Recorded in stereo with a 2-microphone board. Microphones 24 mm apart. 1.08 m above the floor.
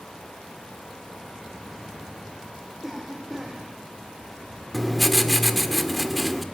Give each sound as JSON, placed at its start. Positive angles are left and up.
{"t": 2.8, "sound": "a cough", "side_deg": -15, "distance_m": 4.0}
{"t": 4.7, "sound": "writing", "side_deg": 5, "distance_m": 1.5}